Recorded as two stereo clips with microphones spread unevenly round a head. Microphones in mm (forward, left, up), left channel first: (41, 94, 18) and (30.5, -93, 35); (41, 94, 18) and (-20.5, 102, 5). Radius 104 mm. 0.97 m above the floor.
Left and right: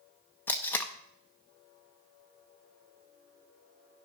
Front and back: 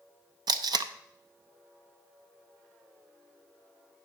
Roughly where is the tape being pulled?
Behind.